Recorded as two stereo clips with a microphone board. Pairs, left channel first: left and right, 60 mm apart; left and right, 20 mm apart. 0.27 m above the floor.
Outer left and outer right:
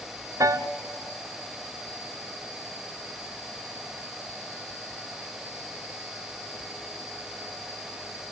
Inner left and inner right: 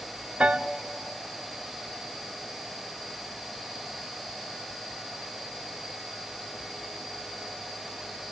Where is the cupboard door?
No cupboard door in this recording.